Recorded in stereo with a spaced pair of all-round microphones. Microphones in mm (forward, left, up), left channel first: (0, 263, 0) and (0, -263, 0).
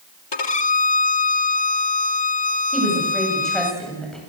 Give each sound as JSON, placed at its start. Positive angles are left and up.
{"t": 0.3, "sound": "a violin", "side_deg": 50, "distance_m": 0.9}
{"t": 2.7, "sound": "a woman speaking", "side_deg": 0, "distance_m": 8.5}